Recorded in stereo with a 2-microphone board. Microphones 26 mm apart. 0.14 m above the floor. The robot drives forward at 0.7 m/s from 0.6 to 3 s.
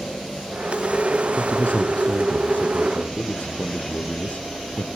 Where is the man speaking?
65° left (ahead or behind), 4.5 m; by 4.8 s 70° left (ahead or behind), 4.5 m.